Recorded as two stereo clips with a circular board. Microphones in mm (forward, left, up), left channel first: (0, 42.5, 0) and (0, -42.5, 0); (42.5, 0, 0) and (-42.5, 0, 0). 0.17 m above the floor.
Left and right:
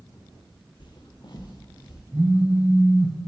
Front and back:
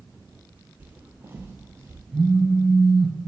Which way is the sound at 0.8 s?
110° left.